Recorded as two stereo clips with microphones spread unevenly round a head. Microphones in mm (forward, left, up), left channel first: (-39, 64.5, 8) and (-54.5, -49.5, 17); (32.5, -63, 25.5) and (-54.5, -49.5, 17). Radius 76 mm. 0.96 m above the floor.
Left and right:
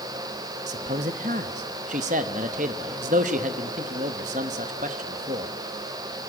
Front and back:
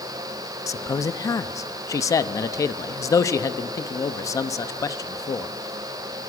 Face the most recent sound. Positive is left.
turn(degrees=-60)